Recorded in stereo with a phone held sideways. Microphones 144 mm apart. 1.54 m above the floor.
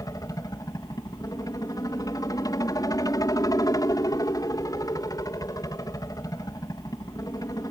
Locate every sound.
0.0 s a helicopter: 25° left (ahead or behind)